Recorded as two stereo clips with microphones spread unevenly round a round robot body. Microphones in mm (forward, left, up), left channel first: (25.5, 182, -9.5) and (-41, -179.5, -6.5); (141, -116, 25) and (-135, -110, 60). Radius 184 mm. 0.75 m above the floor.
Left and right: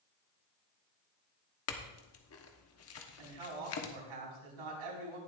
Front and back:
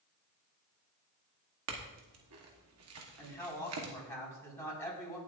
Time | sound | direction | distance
1.7 | a clink | 130° left | 1.1 m
3.2 | a man speaking | 85° right | 5 m